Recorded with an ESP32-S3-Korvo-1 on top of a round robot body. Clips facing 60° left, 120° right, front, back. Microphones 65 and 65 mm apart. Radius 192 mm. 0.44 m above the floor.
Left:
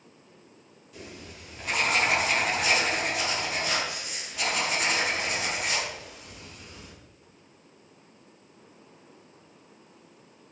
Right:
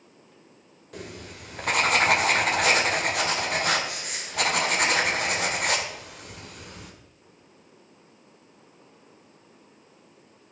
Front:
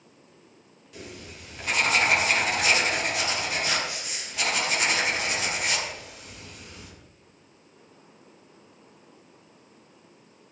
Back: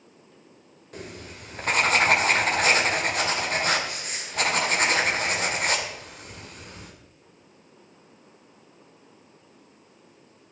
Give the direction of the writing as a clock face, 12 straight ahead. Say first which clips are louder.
Right 4 dB, back 2 dB; 5 o'clock.